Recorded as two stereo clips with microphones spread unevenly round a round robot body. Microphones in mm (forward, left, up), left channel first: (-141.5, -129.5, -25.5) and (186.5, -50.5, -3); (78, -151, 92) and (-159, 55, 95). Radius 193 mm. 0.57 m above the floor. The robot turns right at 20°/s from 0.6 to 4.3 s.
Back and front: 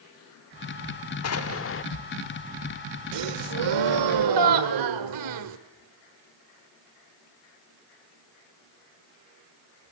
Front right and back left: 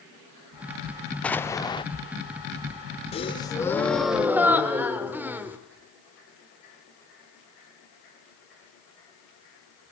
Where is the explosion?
125° right, 1.1 m; by 1.9 s 115° right, 1.1 m.